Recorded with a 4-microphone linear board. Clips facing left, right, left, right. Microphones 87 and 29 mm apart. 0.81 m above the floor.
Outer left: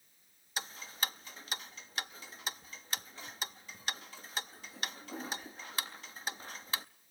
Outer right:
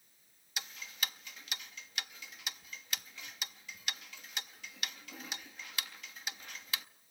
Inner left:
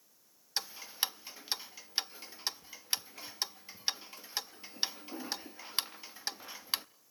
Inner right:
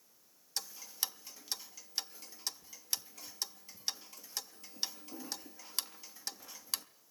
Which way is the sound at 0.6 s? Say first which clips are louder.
Outer left 3 dB, inner left 5 dB; 35° left (ahead or behind).